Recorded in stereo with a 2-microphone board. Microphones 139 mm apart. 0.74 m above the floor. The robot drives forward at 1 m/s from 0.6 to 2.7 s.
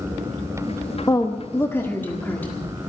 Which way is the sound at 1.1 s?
25° left (ahead or behind).